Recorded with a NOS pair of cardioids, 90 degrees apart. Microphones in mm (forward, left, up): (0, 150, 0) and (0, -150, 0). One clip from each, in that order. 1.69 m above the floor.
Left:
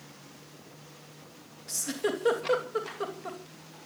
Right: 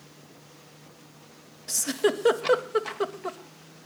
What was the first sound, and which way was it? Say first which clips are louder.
A giggle: right 6 dB; 40° right.